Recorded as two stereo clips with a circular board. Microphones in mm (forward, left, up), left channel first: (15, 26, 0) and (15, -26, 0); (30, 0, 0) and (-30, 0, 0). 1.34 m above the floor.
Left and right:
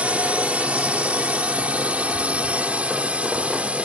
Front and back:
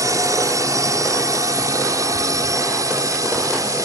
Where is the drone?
155° right.